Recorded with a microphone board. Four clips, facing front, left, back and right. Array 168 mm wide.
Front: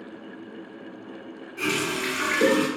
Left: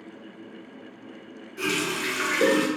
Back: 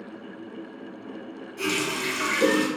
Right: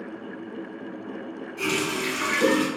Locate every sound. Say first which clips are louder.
1.6 s a running tap: right 1 dB, front 1 dB; 45° left, 1.3 m